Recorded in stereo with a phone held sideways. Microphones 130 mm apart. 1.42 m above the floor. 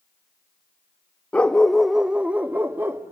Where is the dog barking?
10° left (ahead or behind), 0.8 m; by 3.1 s 20° right (ahead or behind), 1.2 m.